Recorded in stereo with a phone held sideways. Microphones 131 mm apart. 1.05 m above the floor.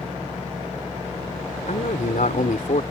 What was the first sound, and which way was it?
A man speaking, 85° left.